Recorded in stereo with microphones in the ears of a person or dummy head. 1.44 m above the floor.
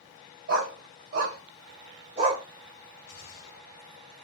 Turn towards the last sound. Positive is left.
turn(degrees=50)  # may be behind; listen again after turning